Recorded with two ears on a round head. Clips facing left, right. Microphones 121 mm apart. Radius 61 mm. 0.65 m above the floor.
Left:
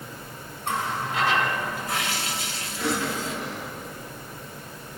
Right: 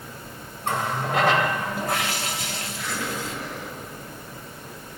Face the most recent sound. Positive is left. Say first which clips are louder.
# left 5 dB
turn(degrees=55)  # may be behind; listen again after turning